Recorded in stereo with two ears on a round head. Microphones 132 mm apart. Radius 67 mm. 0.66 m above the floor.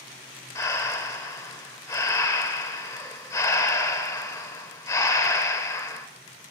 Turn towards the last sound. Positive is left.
turn(degrees=20)  # may be behind; listen again after turning